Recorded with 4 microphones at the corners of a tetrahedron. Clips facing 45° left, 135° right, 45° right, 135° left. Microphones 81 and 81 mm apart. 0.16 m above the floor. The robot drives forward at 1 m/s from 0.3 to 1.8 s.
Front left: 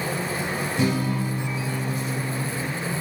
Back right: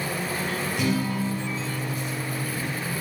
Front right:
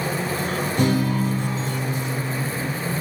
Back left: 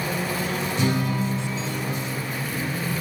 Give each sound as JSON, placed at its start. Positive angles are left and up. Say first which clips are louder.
{"t": 0.8, "sound": "a guitar", "louder": "front left 2 dB, front right 4 dB", "azimuth_deg": -15, "distance_m": 5.5}